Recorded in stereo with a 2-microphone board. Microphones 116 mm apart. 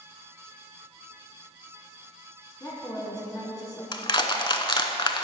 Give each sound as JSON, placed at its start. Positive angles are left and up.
{"t": 2.6, "sound": "a woman speaking", "side_deg": 30, "distance_m": 1.8}
{"t": 3.9, "sound": "crushing", "side_deg": 40, "distance_m": 0.7}